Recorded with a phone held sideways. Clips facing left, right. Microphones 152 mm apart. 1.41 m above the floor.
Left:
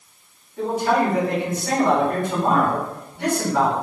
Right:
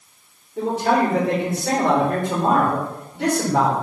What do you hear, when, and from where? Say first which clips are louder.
0.6 s a man speaking: right 1 dB; 80° right, 2.5 m